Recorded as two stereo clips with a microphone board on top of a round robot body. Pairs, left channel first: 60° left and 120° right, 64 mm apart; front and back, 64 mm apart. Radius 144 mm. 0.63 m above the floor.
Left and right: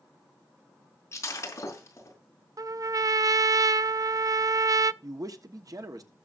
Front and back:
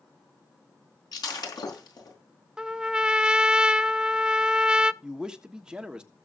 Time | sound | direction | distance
1.1 | breaking glass | 10° left | 4 m
2.6 | a trumpet | 105° right | 0.6 m
5.0 | a man speaking | 105° right | 1.4 m